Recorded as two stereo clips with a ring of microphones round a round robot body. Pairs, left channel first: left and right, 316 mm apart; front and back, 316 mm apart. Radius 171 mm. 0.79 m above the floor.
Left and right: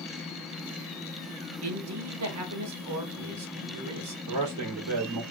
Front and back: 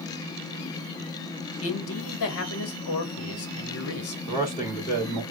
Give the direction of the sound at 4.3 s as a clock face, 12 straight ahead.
2 o'clock.